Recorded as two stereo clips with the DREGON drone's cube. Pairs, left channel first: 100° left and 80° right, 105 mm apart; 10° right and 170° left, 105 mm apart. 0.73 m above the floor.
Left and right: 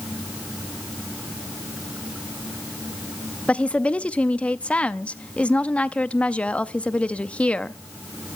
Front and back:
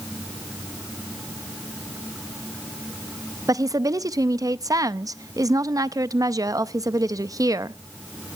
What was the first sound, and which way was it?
A woman speaking, 165° left.